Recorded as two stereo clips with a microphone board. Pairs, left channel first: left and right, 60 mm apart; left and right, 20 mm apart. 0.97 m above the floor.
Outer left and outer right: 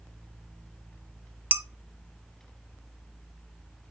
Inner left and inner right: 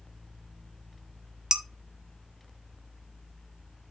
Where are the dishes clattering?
35° right (ahead or behind), 0.7 m.